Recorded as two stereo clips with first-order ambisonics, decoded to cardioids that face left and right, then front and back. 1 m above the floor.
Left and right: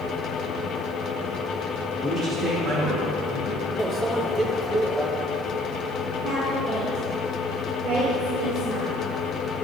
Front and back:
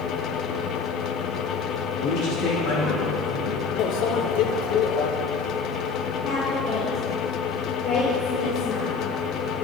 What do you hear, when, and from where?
2.0 s a man speaking: 10° right, 2.0 m; by 3.7 s 25° right, 4 m
3.8 s a microwave: 15° right, 0.5 m
6.2 s a woman speaking: 30° right, 1.5 m